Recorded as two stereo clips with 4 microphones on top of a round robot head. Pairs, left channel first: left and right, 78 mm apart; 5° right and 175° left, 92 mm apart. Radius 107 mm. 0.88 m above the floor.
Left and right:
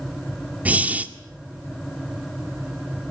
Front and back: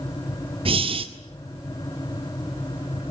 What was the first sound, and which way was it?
Breathing, 160° right.